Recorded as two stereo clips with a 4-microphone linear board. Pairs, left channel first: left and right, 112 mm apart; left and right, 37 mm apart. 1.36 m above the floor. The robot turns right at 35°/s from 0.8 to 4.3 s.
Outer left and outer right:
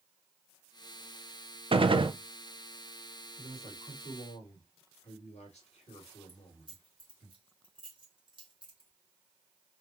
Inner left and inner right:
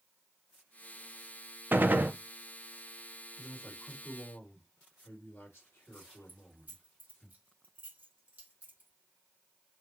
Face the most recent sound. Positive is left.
turn(degrees=-45)  # may be behind; listen again after turning